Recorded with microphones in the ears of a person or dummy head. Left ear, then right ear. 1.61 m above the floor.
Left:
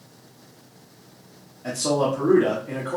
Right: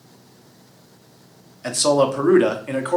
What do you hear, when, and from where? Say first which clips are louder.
1.6 s a man speaking: right 5 dB; 55° right (ahead or behind), 0.7 m